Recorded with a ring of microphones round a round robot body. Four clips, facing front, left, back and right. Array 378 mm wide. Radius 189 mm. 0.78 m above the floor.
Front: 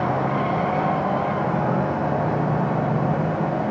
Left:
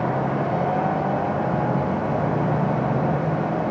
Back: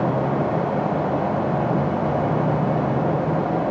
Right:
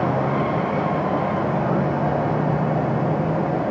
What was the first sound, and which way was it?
Only background noise.